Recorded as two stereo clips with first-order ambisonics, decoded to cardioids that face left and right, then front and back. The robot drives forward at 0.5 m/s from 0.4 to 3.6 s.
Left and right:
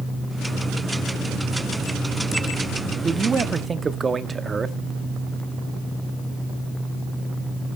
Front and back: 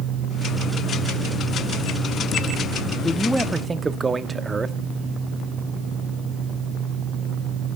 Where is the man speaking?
50° right, 0.6 m; by 4.8 s 125° right, 0.6 m.